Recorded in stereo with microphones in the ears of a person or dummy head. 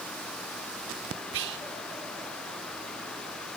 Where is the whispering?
65° right (ahead or behind), 0.6 m.